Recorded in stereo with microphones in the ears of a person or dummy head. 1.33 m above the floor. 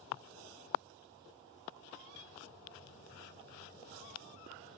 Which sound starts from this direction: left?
A piano, at 2.1 s.